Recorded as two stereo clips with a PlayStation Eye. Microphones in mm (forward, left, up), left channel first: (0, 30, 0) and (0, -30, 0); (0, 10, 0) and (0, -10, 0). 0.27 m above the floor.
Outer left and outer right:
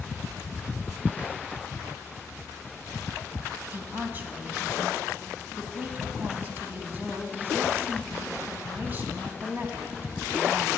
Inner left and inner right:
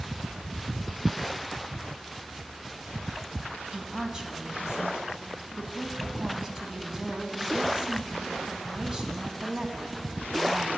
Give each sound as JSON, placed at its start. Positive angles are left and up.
{"t": 3.7, "sound": "a woman speaking", "side_deg": -35, "distance_m": 2.0}